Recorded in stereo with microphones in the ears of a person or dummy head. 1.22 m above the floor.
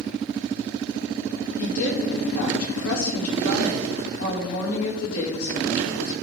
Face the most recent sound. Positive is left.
turn(degrees=80)